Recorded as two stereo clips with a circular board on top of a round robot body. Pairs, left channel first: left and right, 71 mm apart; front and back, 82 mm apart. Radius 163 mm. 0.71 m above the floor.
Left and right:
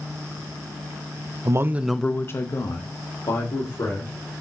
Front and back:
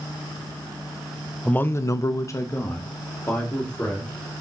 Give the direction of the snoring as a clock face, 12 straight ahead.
No snoring in this recording.